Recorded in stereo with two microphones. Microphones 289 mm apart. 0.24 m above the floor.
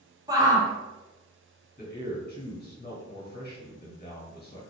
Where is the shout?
15° right (ahead or behind), 1.2 m.